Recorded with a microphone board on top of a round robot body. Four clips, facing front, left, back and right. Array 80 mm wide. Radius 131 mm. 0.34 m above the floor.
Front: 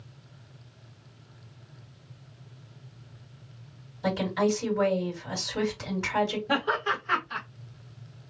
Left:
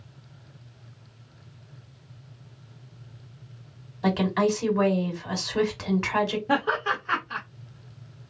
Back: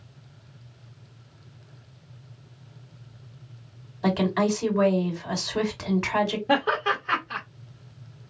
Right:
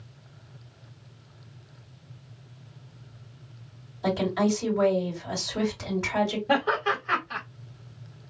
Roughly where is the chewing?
No chewing in this recording.